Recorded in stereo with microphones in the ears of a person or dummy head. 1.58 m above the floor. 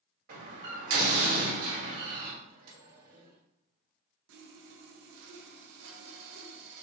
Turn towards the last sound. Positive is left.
turn(degrees=-75)  # may be behind; listen again after turning